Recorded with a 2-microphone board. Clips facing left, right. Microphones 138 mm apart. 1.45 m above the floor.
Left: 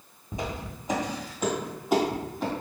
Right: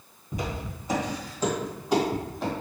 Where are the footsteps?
25° left (ahead or behind), 1.8 m; by 2.5 s centre (ahead or behind), 2.5 m.